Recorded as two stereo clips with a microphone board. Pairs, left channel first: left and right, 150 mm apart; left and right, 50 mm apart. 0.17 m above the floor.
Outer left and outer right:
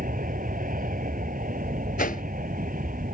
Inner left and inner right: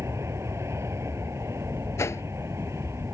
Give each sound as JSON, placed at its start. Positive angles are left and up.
{"t": 0.0, "sound": "an aircraft", "side_deg": -65}
{"t": 2.0, "sound": "a whoosh", "side_deg": 70}